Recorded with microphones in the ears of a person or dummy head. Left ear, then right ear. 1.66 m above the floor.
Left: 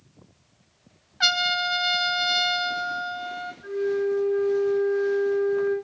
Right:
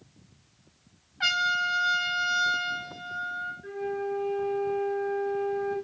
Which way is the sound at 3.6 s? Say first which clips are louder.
Left 11 dB; 20° left (ahead or behind).